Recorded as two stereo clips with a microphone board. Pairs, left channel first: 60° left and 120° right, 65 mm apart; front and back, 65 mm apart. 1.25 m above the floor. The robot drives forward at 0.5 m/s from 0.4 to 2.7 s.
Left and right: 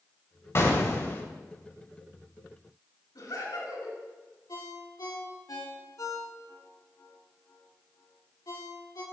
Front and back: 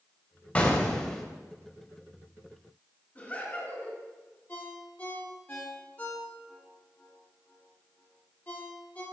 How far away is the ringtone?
About 2 m.